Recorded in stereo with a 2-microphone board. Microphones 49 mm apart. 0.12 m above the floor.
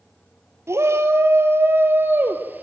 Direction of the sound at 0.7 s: 60° right (ahead or behind).